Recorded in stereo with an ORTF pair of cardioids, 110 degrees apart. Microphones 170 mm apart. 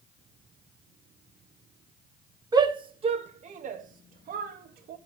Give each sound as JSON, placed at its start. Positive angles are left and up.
{"t": 2.5, "sound": "a shout", "azimuth_deg": -25, "distance_m": 1.5}